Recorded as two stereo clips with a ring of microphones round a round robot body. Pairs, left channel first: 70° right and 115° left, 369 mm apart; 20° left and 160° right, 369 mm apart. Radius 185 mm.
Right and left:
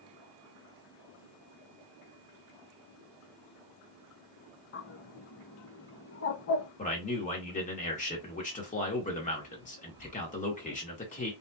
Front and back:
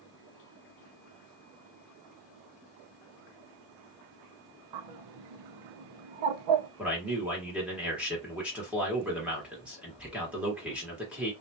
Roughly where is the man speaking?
Right.